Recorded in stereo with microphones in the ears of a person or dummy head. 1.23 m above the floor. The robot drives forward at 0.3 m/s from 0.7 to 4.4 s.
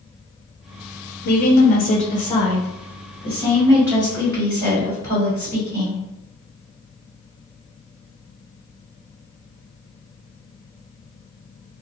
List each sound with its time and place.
1.2 s a woman speaking: 55° left (ahead or behind), 0.5 m; by 6.0 s 20° left (ahead or behind), 1.3 m